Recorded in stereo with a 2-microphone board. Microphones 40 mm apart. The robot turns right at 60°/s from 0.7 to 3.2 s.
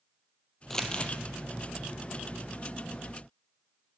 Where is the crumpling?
10° left (ahead or behind), 0.6 m; by 1.1 s 35° left (ahead or behind), 0.6 m.